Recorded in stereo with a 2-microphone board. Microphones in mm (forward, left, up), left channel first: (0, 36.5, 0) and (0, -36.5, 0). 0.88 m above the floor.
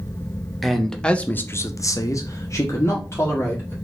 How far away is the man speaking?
About 1.0 m.